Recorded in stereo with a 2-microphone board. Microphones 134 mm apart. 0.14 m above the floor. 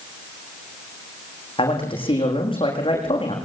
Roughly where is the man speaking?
Left.